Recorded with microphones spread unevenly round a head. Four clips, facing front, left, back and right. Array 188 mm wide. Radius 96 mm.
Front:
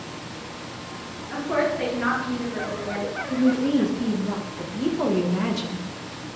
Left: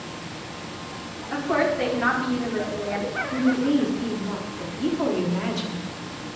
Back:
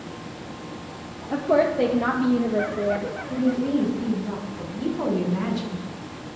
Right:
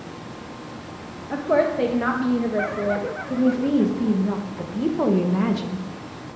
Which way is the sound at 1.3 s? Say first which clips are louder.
Right 3 dB, back 4 dB; 145° right.